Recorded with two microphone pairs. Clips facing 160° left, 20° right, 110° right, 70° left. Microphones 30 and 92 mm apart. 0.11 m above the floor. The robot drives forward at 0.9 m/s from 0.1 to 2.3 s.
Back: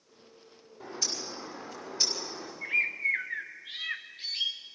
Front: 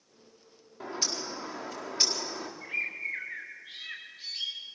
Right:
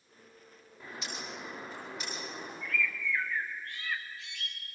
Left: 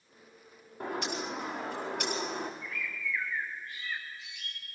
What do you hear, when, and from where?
0.8 s a bird: 30° left, 5 m; by 2.5 s 40° left, 4 m
2.6 s a bird: 130° right, 1.7 m